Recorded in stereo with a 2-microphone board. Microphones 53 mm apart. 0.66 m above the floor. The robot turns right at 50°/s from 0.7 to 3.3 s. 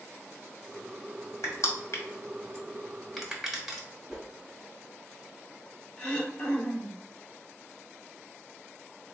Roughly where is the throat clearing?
Left.